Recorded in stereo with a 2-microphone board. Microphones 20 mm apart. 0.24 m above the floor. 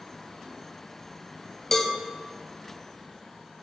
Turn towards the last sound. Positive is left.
turn(degrees=20)  # may be behind; listen again after turning